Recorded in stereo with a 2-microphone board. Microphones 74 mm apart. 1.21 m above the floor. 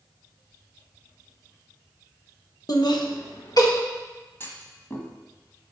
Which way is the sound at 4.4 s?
35° left (ahead or behind).